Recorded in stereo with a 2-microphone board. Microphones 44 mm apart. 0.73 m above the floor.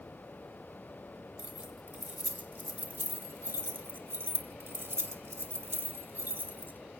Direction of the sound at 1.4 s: 35° right (ahead or behind).